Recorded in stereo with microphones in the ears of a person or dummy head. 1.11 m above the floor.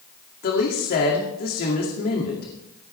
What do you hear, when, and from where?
0.4 s a woman speaking: 50° left (ahead or behind), 2.5 m